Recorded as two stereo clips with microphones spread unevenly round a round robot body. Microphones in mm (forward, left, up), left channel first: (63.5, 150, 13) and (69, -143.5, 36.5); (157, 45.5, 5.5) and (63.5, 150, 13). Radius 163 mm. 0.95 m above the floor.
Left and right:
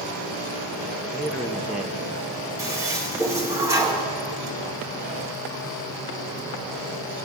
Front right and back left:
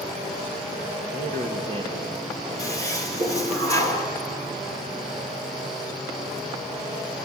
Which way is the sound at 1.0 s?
Straight behind.